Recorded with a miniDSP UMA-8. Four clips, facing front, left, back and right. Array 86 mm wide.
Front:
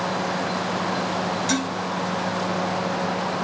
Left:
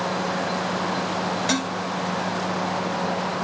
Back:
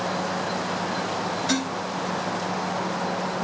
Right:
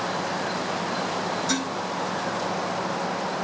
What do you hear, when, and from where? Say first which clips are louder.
1.5 s dishes clattering: left 2 dB, front 1 dB; 80° left, 3.5 m